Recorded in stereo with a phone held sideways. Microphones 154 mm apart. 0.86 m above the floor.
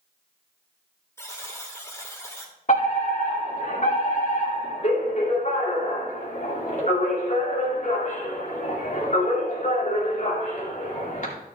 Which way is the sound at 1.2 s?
15° left (ahead or behind).